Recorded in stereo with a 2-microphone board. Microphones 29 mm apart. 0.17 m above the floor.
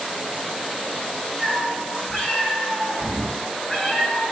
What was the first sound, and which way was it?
A cat meowing, 15° left (ahead or behind).